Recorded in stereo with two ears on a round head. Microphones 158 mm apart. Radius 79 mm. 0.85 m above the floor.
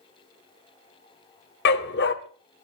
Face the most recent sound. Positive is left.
turn(degrees=65)  # may be behind; listen again after turning